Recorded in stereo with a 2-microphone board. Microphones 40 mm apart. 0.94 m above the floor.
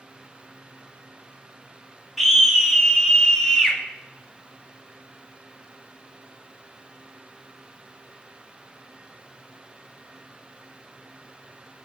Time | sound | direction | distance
2.2 | a scream | 5° right (ahead or behind) | 1.8 m